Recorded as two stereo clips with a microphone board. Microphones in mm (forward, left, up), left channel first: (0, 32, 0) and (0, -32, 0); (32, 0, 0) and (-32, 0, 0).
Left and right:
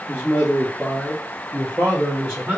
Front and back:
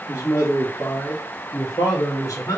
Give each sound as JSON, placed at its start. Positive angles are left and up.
{"t": 0.1, "sound": "a man speaking", "azimuth_deg": 25, "distance_m": 1.3}